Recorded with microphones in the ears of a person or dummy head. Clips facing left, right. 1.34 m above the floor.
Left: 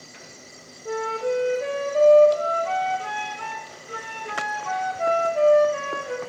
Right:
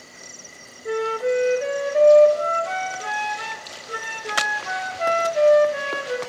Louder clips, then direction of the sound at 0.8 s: Right 3 dB; 20° right (ahead or behind).